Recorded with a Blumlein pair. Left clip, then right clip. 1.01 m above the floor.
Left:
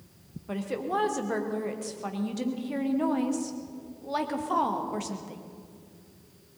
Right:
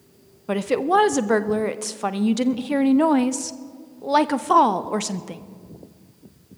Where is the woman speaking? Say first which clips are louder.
Right 11 dB; 60° right, 0.7 m.